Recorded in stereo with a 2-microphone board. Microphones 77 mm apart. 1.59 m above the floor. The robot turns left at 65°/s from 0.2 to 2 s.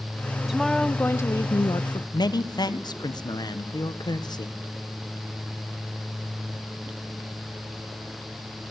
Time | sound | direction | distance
0.5 | a woman speaking | 170° right | 1.0 m
2.1 | a man speaking | 60° left (ahead or behind) | 1.5 m